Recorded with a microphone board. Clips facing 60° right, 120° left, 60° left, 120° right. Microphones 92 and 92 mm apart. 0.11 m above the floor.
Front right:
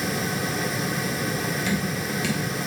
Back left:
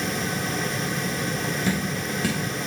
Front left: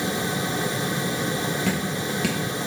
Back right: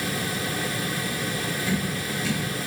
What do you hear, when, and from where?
1.7 s dripping: 70° left, 3 m